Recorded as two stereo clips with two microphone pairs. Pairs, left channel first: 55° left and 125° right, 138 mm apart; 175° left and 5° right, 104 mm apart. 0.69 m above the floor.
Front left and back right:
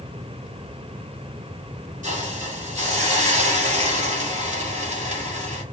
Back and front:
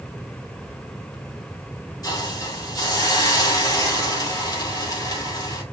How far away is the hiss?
About 2.5 m.